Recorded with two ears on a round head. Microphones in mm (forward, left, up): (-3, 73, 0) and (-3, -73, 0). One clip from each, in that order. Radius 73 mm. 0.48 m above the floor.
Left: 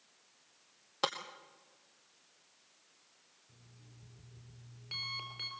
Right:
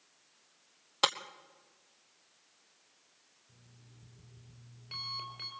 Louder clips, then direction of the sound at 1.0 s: Right 5 dB; 35° right (ahead or behind).